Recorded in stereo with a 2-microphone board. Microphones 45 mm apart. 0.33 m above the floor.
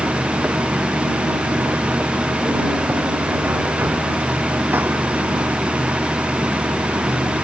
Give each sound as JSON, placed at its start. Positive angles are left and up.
{"t": 0.0, "sound": "running water", "side_deg": -55}